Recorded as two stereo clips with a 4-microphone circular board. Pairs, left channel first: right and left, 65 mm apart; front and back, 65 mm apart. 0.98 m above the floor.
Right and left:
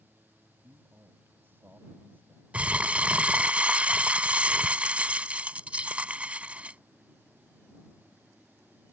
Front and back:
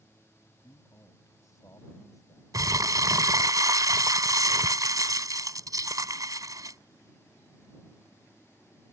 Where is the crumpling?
160° left.